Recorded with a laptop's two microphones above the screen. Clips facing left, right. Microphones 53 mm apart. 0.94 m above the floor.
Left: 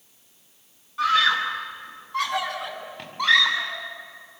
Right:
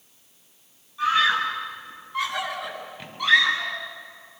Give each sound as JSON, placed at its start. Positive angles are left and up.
{"t": 1.0, "sound": "a scream", "side_deg": 75, "distance_m": 5.5}